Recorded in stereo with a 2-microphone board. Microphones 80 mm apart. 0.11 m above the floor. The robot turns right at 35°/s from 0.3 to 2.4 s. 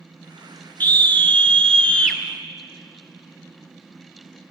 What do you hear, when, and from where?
0.8 s a scream: 20° left (ahead or behind), 1.1 m; by 2.2 s 10° left (ahead or behind), 1.1 m